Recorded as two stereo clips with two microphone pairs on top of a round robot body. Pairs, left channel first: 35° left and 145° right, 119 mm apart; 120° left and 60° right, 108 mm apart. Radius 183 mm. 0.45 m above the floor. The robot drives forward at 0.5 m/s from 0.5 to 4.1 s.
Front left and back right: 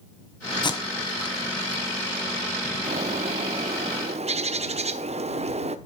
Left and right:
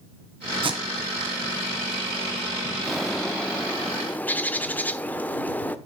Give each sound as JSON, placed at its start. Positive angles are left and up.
{"t": 0.6, "sound": "tape being pulled", "azimuth_deg": -15, "distance_m": 1.7}
{"t": 2.8, "sound": "a bird", "azimuth_deg": -150, "distance_m": 0.8}